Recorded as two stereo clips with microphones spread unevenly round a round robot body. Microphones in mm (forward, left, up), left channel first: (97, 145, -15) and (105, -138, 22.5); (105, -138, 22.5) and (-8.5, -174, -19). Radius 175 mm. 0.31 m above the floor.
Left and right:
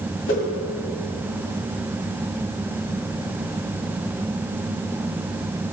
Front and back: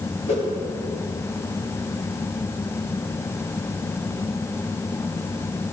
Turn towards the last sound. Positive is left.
turn(degrees=70)